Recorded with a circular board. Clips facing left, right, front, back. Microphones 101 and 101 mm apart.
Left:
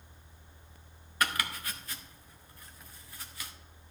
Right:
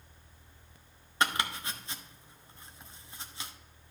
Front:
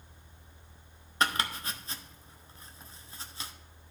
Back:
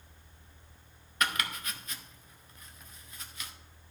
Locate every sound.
1.2 s chopping: 40° right, 0.8 m